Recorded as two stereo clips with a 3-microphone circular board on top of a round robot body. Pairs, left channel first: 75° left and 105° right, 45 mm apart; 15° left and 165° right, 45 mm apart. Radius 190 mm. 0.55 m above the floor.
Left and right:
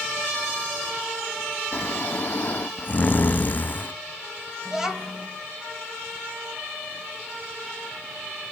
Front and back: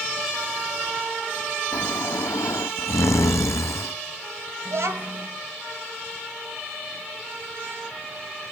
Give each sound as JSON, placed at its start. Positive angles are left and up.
{"t": 1.7, "sound": "snoring", "azimuth_deg": 20, "distance_m": 0.5}
{"t": 4.7, "sound": "a child speaking", "azimuth_deg": 175, "distance_m": 2.5}